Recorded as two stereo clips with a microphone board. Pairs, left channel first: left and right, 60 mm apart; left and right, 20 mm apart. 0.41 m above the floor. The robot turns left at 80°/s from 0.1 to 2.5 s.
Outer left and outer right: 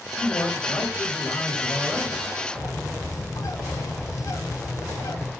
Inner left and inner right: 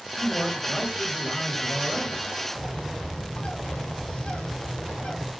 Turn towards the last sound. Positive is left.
turn(degrees=70)  # may be behind; listen again after turning